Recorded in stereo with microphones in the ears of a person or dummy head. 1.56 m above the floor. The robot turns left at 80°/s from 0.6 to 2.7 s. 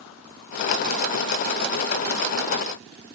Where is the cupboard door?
I don't hear a cupboard door.